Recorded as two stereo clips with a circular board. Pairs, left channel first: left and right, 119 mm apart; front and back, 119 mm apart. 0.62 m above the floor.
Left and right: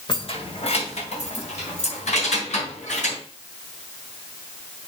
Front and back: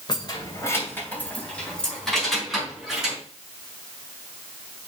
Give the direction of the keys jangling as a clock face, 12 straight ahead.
10 o'clock.